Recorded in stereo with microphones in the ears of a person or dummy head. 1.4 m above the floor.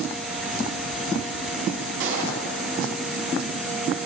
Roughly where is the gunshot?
Right.